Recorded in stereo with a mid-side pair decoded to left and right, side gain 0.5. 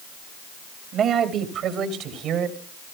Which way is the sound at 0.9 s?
55° right.